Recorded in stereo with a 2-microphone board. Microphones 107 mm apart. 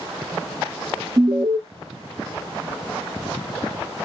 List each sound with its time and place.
1.2 s an alarm: 50° right (ahead or behind), 0.6 m